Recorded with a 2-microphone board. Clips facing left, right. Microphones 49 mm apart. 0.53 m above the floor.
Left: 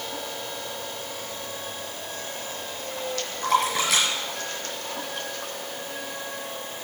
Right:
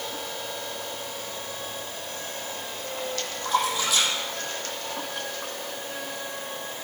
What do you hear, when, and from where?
3.4 s a splash: 85° left, 5.5 m